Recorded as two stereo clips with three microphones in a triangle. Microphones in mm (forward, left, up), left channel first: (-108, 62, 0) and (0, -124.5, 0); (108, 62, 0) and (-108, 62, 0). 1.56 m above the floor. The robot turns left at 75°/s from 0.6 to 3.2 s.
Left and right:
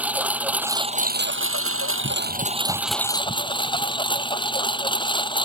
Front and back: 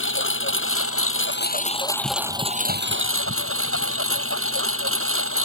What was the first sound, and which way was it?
A lawn mower, 25° left.